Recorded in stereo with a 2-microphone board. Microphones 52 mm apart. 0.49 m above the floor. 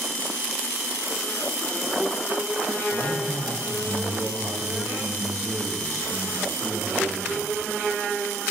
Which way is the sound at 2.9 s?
70° right (ahead or behind).